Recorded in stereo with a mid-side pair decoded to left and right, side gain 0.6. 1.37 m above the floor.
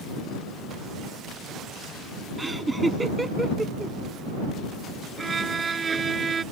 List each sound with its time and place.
2.4 s laughter: 15° right
5.2 s a violin: 30° right